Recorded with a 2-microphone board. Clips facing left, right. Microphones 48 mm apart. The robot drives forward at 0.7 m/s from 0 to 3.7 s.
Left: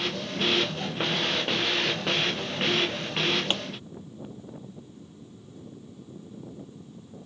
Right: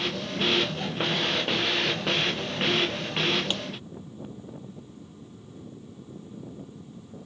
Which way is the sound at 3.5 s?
35° left (ahead or behind).